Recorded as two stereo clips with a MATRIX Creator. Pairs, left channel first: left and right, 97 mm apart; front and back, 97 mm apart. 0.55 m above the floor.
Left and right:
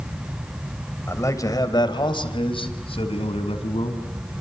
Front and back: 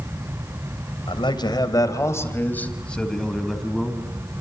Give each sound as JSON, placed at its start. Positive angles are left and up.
{"t": 1.1, "sound": "a man speaking", "azimuth_deg": 30, "distance_m": 3.0}